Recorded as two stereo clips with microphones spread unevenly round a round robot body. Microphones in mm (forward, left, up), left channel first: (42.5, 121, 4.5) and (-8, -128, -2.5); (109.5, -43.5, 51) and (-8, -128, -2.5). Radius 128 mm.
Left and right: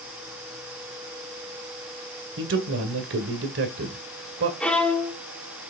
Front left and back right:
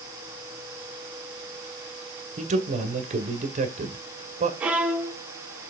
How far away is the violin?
About 0.6 m.